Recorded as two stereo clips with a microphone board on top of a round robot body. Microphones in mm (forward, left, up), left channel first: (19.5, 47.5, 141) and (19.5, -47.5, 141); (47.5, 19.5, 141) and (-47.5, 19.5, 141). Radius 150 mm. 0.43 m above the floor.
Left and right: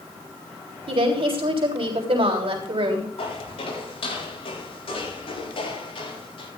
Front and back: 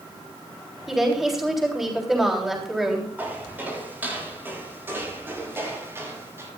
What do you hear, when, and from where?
0.9 s a woman speaking: 90° right, 3.5 m
3.2 s footsteps: 105° left, 9.5 m; by 6.5 s 115° left, 8 m